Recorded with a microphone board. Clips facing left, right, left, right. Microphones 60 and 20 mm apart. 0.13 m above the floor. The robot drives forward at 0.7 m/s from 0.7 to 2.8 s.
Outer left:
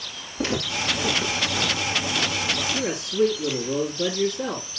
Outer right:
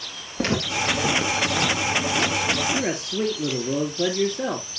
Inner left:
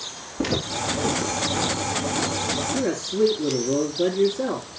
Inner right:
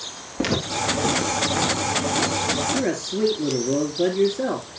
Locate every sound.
0.4 s footsteps: 60° right (ahead or behind), 6 m; by 2.6 s 75° right (ahead or behind), 4.5 m
2.7 s a man speaking: 40° right (ahead or behind), 2.5 m